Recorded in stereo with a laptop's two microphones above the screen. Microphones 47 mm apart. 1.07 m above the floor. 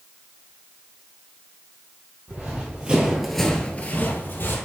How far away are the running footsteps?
About 2 m.